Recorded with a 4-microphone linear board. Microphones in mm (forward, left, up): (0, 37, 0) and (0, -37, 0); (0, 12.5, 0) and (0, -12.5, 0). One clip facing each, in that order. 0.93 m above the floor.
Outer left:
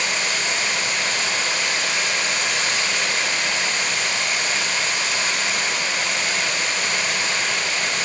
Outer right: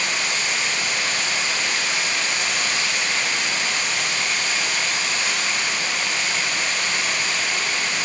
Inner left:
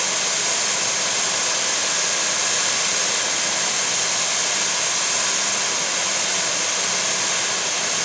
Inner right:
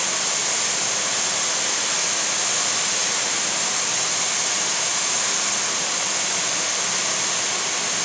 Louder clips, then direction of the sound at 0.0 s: Outer left 1 dB, inner left 2 dB; 85° left.